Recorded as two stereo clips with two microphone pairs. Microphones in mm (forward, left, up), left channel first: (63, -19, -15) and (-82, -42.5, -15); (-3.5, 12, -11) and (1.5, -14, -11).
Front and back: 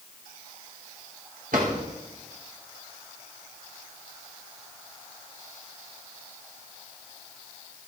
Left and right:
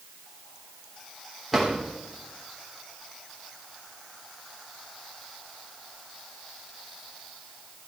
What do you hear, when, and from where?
1.5 s a drawer: 170° right, 3 m